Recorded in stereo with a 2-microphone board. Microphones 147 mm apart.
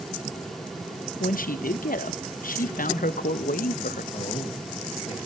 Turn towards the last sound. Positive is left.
turn(degrees=45)  # may be behind; listen again after turning